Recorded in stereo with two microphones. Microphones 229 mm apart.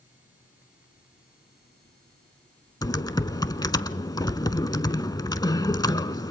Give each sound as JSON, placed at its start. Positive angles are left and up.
{"t": 2.8, "sound": "typing on a keyboard", "side_deg": 15, "distance_m": 0.7}